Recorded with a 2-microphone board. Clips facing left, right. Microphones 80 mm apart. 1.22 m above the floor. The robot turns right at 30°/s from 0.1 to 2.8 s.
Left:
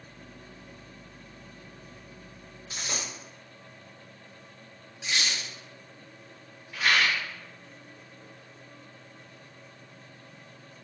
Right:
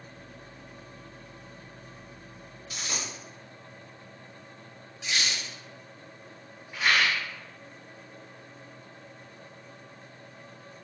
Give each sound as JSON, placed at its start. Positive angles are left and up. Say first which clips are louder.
{"t": 2.7, "sound": "a dropped coin", "louder": "even", "side_deg": 30, "distance_m": 0.7}
{"t": 5.0, "sound": "a squeak", "louder": "even", "side_deg": 20, "distance_m": 1.3}
{"t": 6.7, "sound": "a rattle", "louder": "even", "side_deg": -20, "distance_m": 1.2}